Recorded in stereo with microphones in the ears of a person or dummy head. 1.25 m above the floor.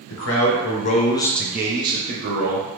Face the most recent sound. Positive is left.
turn(degrees=-55)  # may be behind; listen again after turning